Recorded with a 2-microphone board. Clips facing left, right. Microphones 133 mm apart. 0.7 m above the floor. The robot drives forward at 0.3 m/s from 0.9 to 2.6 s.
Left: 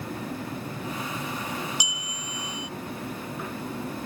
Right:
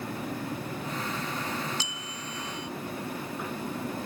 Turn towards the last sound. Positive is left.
turn(degrees=15)  # may be behind; listen again after turning